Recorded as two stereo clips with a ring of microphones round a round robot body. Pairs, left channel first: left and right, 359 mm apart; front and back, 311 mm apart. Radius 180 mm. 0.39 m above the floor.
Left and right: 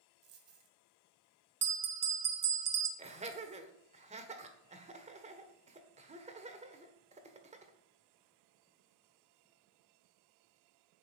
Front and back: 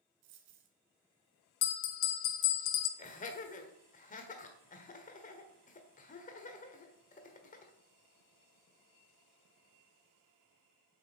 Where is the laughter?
35° right, 1.3 m.